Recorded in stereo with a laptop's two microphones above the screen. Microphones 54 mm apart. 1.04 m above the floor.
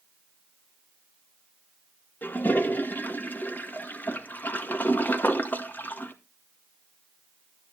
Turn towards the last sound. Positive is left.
turn(degrees=35)  # may be behind; listen again after turning